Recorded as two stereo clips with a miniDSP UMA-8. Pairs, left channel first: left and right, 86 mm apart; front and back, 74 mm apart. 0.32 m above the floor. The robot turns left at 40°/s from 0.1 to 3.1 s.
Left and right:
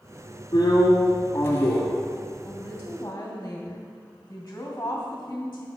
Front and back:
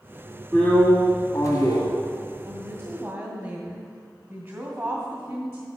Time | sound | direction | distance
0.5 | a drill | 70° left | 1.9 m
2.5 | a woman speaking | 165° left | 1.9 m